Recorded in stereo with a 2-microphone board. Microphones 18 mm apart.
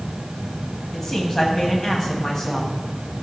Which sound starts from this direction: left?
A man speaking, at 0.9 s.